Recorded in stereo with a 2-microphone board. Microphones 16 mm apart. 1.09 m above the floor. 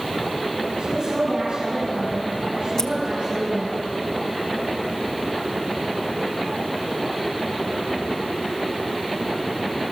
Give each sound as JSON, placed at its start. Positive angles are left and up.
{"t": 0.8, "sound": "a woman speaking", "side_deg": -80, "distance_m": 6.5}
{"t": 2.8, "sound": "scissors", "side_deg": 40, "distance_m": 1.0}